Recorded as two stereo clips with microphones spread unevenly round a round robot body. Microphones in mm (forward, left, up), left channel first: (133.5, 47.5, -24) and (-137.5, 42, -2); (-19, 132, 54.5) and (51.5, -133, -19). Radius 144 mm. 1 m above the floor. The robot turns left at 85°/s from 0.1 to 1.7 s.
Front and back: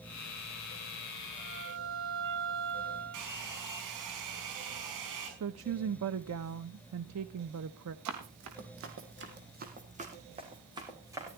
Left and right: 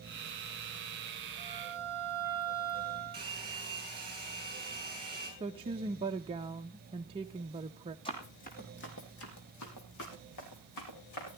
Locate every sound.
1.4 s a violin: 130° right, 4 m; by 3.3 s 160° right, 4 m
3.1 s a hair dryer: 150° right, 5.5 m
5.4 s a woman speaking: 140° right, 0.6 m
8.1 s running footsteps: 170° left, 3 m; by 11.4 s 100° left, 5.5 m